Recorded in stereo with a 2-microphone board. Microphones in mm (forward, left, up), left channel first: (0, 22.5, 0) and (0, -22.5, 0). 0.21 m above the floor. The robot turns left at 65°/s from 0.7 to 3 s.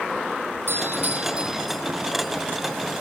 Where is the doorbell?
115° right; by 1.8 s 175° left.